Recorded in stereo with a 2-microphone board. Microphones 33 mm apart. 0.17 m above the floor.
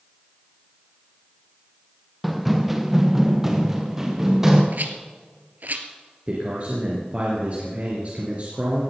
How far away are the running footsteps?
About 1.1 m.